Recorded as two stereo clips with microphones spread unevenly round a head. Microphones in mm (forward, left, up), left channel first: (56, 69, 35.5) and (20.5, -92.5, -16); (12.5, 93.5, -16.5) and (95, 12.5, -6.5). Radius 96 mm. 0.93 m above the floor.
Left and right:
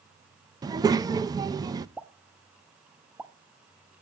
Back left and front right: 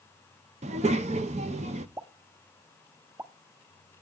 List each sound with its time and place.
0.6 s a child speaking: 55° right, 0.5 m
2.0 s a pop: straight ahead, 0.9 m